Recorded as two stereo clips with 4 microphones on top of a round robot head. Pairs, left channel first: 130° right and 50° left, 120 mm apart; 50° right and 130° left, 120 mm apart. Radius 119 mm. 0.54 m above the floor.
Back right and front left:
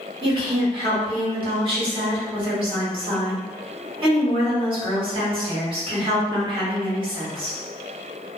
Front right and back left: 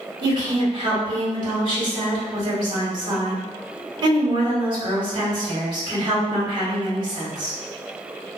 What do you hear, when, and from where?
0.2 s a woman speaking: 85° left, 1.8 m